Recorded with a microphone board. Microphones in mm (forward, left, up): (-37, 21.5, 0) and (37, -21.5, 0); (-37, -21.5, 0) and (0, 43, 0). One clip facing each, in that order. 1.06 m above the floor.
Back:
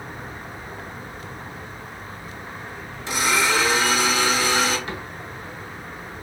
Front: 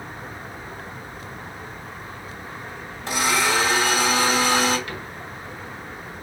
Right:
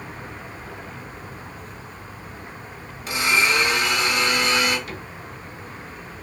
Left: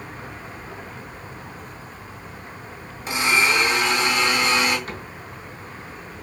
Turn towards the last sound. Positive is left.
turn(degrees=90)